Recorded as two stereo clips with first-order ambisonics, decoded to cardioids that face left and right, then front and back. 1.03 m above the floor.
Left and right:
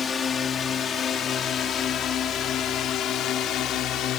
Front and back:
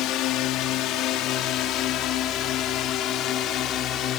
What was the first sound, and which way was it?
A drone, 25° left.